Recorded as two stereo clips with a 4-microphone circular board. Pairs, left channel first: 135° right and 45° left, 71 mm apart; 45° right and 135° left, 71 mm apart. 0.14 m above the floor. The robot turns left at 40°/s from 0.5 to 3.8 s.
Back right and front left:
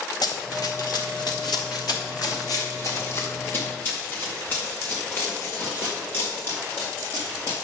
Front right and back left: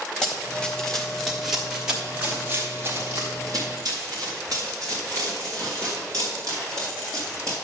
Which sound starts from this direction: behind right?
Running footsteps, at 0.2 s.